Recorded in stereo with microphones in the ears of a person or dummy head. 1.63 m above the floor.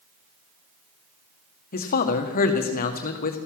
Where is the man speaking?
50° left (ahead or behind), 1.7 m.